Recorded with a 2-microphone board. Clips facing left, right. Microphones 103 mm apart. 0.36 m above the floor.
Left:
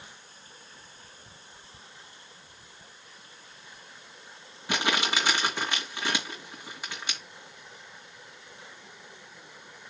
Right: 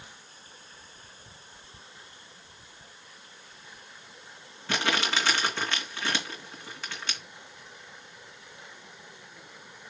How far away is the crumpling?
About 2.5 m.